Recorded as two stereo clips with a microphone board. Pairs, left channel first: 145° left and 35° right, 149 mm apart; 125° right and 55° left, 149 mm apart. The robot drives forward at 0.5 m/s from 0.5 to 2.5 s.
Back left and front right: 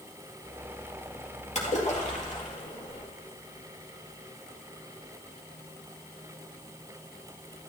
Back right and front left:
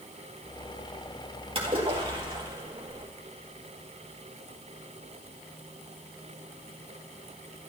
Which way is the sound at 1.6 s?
105° left.